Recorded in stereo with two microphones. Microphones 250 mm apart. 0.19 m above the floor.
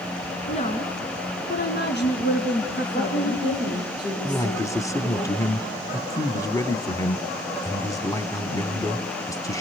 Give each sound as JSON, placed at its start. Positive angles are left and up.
{"t": 0.5, "sound": "a woman speaking", "side_deg": 25, "distance_m": 2.5}
{"t": 2.9, "sound": "a woman speaking", "side_deg": 20, "distance_m": 9.0}
{"t": 4.2, "sound": "a man speaking", "side_deg": 15, "distance_m": 1.3}